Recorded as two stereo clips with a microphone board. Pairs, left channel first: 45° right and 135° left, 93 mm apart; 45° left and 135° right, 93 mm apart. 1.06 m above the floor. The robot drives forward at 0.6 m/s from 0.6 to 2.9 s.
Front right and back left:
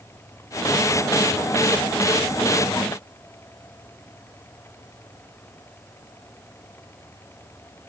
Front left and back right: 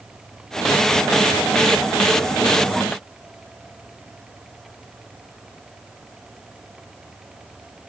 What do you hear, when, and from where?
Only background noise.